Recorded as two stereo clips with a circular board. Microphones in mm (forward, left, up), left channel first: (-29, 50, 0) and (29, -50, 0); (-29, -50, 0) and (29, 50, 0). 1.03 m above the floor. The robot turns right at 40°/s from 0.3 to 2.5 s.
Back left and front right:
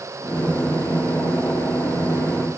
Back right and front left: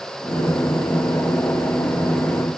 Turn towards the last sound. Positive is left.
No sound to turn to.